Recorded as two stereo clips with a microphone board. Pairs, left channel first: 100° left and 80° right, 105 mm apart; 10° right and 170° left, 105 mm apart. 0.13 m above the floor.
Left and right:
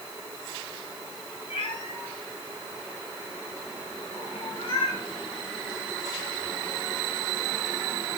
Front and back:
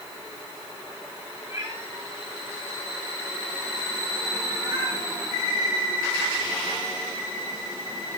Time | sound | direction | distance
1.5 | a cat meowing | 110° left | 5.5 m